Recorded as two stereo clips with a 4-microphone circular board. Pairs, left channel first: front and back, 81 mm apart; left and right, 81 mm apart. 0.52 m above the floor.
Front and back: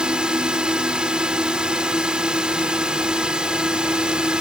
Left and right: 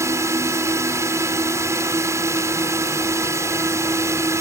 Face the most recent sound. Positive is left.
turn(degrees=-110)